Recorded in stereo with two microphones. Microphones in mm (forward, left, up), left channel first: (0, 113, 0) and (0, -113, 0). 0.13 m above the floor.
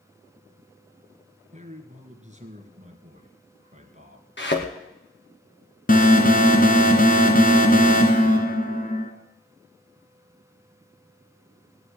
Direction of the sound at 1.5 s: 30° right (ahead or behind).